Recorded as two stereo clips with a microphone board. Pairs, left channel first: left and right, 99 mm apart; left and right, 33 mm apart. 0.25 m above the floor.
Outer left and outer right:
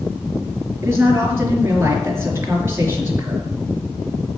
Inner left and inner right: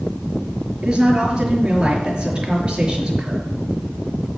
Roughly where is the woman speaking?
Right.